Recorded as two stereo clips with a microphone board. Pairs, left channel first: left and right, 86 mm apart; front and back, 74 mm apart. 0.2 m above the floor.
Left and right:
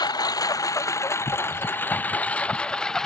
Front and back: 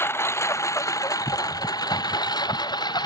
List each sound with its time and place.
0.0 s a lawn mower: 55° left; by 3.1 s 5° left